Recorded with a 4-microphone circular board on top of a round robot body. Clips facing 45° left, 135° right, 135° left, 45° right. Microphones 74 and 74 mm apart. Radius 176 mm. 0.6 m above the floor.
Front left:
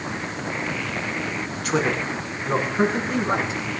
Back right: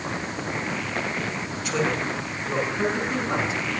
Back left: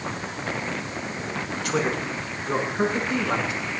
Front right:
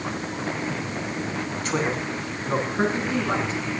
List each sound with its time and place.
1.6 s a man speaking: 15° left, 6.5 m; by 3.6 s 10° left, 9 m